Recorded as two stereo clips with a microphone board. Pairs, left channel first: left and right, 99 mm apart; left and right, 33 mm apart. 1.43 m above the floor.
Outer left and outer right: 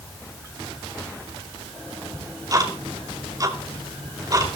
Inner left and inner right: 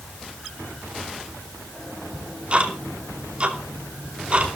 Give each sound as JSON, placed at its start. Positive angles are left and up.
{"t": 2.1, "sound": "ticking", "side_deg": -35, "distance_m": 2.5}